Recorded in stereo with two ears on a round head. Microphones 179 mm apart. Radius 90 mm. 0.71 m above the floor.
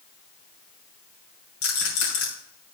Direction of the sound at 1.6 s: 80° left.